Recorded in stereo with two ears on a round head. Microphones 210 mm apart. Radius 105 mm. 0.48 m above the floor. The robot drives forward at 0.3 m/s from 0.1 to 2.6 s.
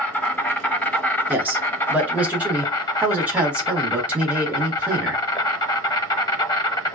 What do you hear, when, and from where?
0.0 s an insect: 5° left (ahead or behind), 1.3 m; by 7.0 s 15° left (ahead or behind), 0.5 m
1.3 s a man speaking: 5° right (ahead or behind), 1.0 m